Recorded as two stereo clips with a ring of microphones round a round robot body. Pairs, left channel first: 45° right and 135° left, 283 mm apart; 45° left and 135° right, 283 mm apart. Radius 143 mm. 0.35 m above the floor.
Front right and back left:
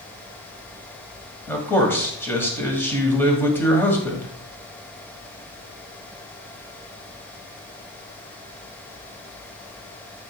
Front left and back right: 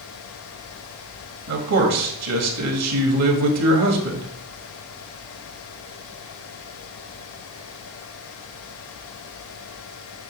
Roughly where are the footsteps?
I don't hear footsteps.